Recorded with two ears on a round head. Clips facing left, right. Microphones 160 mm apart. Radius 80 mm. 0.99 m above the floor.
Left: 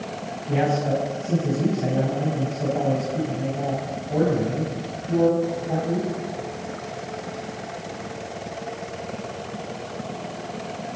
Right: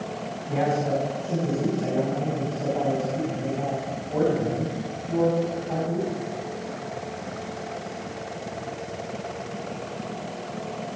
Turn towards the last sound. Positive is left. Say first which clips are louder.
# left 2 dB
turn(degrees=45)  # may be behind; listen again after turning